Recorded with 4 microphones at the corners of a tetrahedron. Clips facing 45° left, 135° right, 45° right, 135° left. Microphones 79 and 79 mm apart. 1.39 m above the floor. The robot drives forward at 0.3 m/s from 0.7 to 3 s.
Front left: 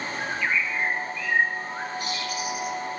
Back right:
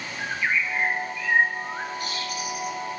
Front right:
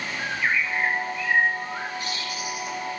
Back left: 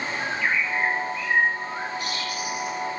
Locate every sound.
0.2 s a bird: 75° right, 1.4 m; by 2.8 s 105° right, 1.4 m